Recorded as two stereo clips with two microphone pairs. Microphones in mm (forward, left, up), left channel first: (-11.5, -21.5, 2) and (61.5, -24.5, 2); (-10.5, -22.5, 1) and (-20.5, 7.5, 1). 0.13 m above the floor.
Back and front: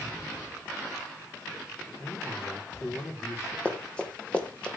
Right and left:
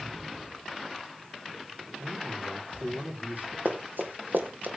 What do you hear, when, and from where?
2.0 s a man speaking: 115° left, 6 m
3.6 s running footsteps: 105° left, 3 m; by 4.7 s 100° left, 2.5 m